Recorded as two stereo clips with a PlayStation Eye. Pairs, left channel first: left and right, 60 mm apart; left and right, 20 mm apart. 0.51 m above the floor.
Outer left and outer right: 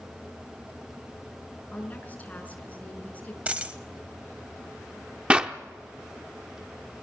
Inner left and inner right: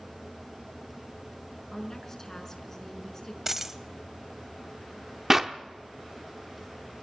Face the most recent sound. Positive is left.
turn(degrees=-20)  # may be behind; listen again after turning